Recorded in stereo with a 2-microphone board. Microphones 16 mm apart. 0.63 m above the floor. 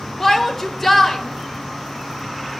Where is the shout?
10° left (ahead or behind), 1.9 m.